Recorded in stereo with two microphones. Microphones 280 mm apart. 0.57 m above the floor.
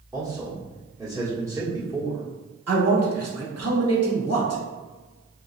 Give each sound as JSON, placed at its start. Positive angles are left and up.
{"t": 0.1, "sound": "a man speaking", "side_deg": -5, "distance_m": 1.3}
{"t": 2.7, "sound": "a man speaking", "side_deg": -60, "distance_m": 1.4}